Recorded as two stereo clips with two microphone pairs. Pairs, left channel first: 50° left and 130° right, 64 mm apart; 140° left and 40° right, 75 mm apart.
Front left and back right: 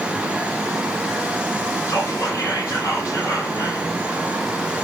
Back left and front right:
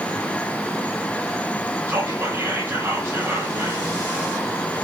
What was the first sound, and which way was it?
Whispering, 20° left.